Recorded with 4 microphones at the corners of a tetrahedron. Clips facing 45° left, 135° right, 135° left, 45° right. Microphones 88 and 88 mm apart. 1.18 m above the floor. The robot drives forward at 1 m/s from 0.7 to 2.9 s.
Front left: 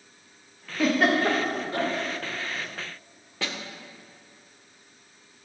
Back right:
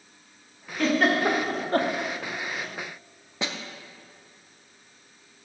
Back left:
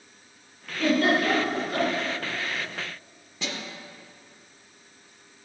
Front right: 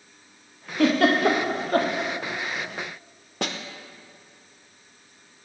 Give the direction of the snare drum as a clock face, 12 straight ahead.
2 o'clock.